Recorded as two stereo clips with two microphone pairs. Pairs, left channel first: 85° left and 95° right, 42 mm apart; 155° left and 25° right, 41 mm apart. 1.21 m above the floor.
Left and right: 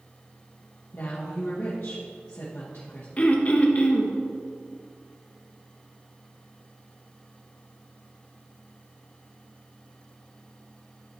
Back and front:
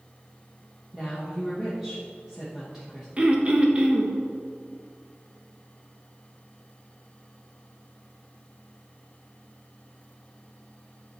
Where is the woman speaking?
55° left, 1.1 m.